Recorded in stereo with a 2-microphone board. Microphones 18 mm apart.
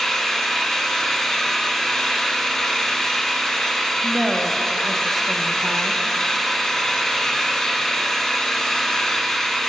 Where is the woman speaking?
5° left (ahead or behind), 0.7 m.